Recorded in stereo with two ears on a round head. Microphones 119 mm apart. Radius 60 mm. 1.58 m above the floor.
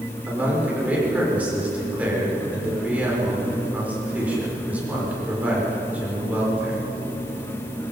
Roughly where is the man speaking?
Centre.